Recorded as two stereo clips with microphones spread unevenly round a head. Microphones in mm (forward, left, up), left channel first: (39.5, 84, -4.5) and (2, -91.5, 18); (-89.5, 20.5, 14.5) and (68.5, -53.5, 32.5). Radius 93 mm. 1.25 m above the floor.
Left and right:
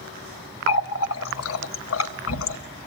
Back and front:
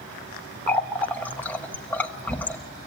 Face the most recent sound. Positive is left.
turn(degrees=70)